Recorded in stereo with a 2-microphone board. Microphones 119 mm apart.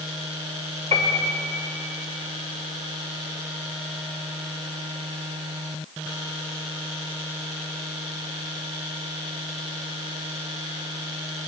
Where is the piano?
65° right (ahead or behind), 1.7 m.